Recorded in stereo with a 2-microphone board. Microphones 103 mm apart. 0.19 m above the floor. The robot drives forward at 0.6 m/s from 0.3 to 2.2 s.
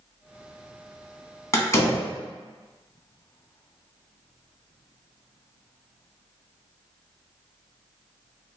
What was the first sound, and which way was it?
A door slam, 30° left (ahead or behind).